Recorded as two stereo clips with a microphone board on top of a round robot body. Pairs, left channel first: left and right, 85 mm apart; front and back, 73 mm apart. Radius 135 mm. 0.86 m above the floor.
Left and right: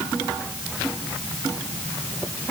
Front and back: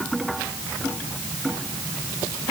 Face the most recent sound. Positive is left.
No sound to turn to.